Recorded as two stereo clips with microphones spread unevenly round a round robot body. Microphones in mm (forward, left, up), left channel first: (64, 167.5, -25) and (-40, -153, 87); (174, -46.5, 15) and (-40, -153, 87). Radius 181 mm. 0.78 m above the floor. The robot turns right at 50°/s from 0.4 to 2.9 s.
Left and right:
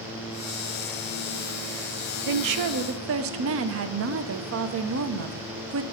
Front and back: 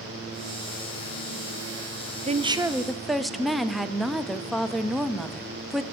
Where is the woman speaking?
80° right, 0.7 m; by 5.8 s 50° right, 0.7 m.